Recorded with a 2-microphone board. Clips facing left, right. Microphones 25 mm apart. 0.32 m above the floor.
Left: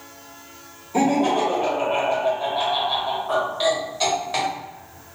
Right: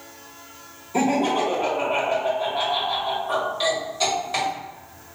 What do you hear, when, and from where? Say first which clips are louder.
0.9 s laughter: left 2 dB; 10° left (ahead or behind), 1.0 m